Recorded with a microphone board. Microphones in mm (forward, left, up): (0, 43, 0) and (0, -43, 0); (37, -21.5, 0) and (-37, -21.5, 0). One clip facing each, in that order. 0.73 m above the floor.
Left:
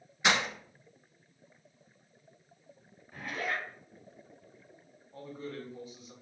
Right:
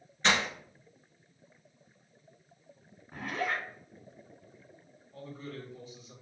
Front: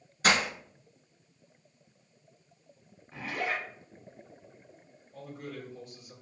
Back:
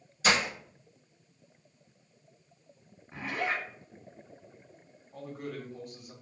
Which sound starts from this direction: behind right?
A zipper, at 3.1 s.